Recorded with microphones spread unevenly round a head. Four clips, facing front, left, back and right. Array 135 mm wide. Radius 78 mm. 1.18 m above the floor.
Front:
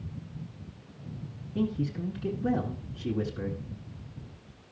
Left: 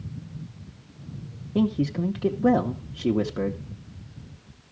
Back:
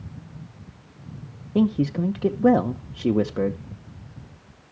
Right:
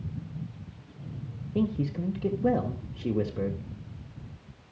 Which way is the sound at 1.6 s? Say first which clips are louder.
Left 5 dB, back 9 dB; 165° left.